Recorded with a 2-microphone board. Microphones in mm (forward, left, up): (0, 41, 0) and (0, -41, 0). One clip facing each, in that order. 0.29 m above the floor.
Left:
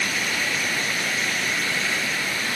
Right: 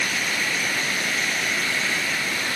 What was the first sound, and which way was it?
Only background noise.